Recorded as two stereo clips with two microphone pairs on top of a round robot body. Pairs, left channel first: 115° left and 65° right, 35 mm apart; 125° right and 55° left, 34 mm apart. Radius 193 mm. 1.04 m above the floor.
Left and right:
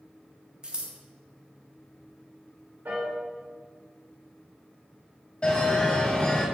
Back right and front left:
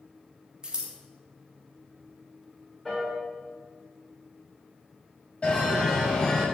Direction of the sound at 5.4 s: 175° left.